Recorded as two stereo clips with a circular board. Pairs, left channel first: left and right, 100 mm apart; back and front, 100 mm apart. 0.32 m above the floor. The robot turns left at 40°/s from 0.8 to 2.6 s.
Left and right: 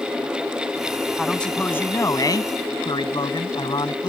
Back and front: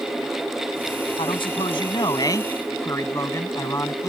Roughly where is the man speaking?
Behind.